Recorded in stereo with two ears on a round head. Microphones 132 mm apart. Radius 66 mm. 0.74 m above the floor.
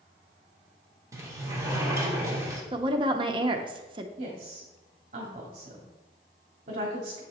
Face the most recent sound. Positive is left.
turn(degrees=-50)  # may be behind; listen again after turning